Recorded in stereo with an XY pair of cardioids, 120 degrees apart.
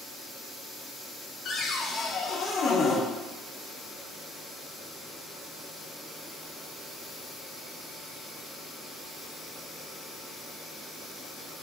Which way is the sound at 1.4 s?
50° left.